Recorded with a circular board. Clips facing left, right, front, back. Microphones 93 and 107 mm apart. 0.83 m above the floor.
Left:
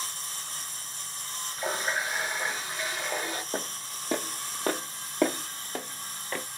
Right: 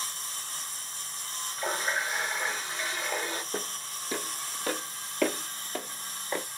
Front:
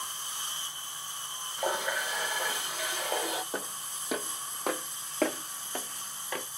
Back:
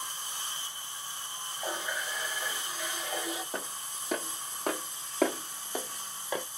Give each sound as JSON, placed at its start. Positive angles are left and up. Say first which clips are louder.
{"t": 1.6, "sound": "a running tap", "louder": "even, front 5 dB", "azimuth_deg": 5, "distance_m": 0.8}
{"t": 3.5, "sound": "footsteps", "louder": "left 1 dB, front 1 dB", "azimuth_deg": 80, "distance_m": 1.6}